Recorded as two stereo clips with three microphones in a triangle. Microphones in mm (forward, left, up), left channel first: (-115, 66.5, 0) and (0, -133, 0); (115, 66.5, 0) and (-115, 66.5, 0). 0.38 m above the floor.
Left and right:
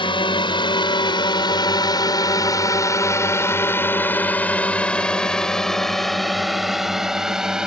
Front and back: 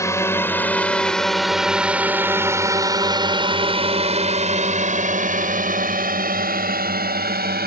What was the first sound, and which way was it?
A drone, 70° left.